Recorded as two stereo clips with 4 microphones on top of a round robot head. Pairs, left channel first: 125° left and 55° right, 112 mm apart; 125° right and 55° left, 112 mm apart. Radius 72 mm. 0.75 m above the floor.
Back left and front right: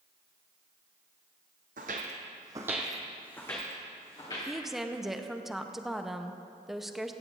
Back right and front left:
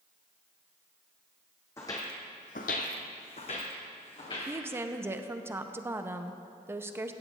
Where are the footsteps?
55° right, 1.6 m; by 4.5 s straight behind, 3 m.